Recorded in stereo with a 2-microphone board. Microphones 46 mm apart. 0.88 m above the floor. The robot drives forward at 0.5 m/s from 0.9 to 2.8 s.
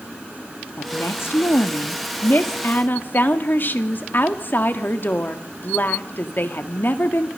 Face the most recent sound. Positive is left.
turn(degrees=50)  # may be behind; listen again after turning